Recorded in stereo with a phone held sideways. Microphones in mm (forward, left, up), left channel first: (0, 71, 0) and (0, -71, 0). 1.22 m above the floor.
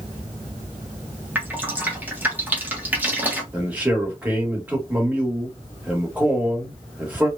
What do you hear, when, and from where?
1.4 s dripping: 10° right (ahead or behind), 1.0 m
3.5 s a man speaking: 10° right (ahead or behind), 1.8 m